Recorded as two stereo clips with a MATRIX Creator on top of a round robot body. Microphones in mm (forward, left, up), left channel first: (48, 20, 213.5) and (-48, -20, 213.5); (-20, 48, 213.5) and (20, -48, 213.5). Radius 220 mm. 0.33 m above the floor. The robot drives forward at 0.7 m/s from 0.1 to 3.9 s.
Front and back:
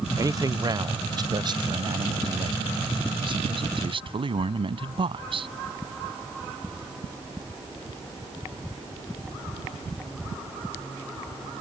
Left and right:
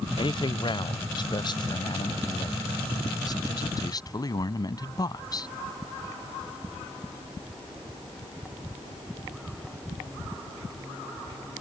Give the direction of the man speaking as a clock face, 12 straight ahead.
7 o'clock.